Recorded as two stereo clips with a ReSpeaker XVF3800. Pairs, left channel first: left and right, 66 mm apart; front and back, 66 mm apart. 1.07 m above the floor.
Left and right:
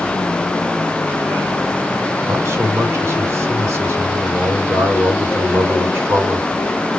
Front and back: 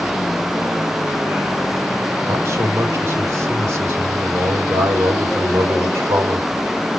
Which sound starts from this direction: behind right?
A man speaking, at 2.3 s.